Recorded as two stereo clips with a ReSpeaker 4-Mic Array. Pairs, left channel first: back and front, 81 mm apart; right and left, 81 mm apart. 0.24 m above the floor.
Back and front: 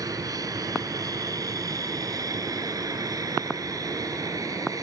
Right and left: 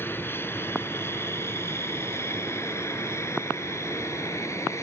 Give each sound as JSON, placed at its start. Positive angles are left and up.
{"t": 0.0, "sound": "an aircraft", "azimuth_deg": -30}